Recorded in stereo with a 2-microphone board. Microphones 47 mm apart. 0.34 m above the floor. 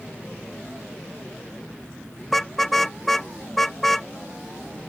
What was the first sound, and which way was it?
A car horn, 5° left (ahead or behind).